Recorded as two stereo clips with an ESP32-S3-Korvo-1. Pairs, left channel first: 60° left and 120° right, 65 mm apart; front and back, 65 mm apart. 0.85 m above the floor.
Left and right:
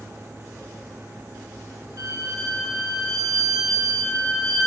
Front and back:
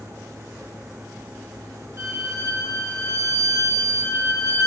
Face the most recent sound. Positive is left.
turn(degrees=-140)